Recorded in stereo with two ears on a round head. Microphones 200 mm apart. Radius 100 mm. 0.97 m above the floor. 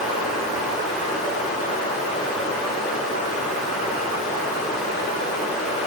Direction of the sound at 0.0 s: 35° left (ahead or behind).